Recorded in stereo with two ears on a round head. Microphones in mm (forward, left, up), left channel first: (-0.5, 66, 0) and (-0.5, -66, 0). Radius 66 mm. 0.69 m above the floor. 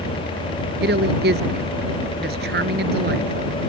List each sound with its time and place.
0.8 s a woman speaking: 80° right